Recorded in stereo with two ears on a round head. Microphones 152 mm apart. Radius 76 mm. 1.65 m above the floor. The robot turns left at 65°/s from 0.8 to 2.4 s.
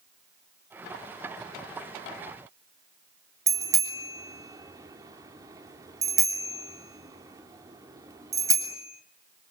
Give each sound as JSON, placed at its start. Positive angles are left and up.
{"t": 3.5, "sound": "a bicycle bell", "side_deg": -20, "distance_m": 3.0}